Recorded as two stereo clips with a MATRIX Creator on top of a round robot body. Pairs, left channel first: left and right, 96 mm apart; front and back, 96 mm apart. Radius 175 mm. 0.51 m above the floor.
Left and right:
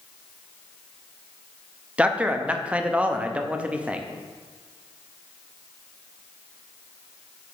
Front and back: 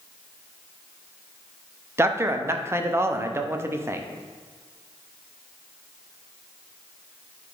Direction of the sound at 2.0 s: 155° right.